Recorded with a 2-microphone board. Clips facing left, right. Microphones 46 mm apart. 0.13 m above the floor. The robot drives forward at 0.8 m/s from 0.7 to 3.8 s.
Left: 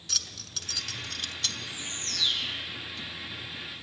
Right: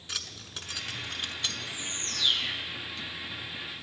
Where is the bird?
30° right (ahead or behind), 2 m; by 2.6 s 40° right (ahead or behind), 1.9 m.